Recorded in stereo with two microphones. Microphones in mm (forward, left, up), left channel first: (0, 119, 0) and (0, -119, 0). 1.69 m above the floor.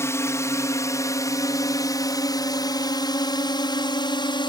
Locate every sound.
0.0 s a drone: 10° left (ahead or behind); by 4.5 s 20° left (ahead or behind)